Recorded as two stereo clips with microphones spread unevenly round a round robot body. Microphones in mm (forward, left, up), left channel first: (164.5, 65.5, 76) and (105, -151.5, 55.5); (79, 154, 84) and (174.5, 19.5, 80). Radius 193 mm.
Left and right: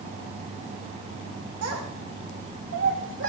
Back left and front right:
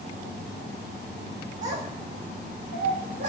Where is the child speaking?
115° right, 3.5 m; by 3.3 s 75° right, 3.5 m.